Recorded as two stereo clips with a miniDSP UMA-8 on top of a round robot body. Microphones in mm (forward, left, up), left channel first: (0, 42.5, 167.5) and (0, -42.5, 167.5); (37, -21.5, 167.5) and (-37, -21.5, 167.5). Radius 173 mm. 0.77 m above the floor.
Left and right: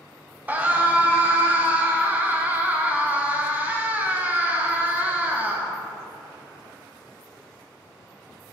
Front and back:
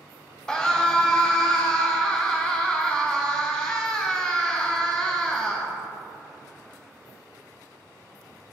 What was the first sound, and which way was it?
A scream, 65° right.